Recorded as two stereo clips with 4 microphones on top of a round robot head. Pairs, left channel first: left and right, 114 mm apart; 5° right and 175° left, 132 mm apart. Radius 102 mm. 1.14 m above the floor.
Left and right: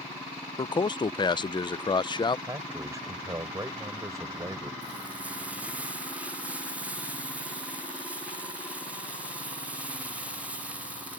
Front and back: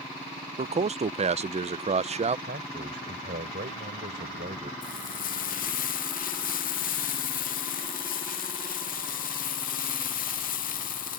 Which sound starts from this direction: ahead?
Frying, at 4.8 s.